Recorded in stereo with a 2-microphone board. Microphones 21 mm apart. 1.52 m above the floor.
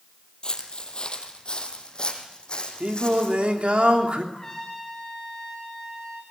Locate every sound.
0.4 s footsteps: 40° left (ahead or behind), 3 m
2.8 s singing: 60° right (ahead or behind), 3 m
4.3 s a trumpet: 10° left (ahead or behind), 8 m